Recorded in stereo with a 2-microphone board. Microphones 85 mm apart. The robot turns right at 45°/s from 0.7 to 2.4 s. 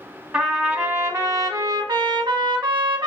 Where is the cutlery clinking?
I don't hear cutlery clinking.